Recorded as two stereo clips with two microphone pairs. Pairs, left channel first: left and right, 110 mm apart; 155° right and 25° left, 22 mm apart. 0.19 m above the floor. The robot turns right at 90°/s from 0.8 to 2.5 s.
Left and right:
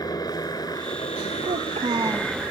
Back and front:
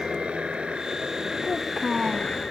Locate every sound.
0.0 s a helicopter: 40° left; by 2.5 s 165° right
1.4 s a child speaking: 95° right; by 2.4 s 10° right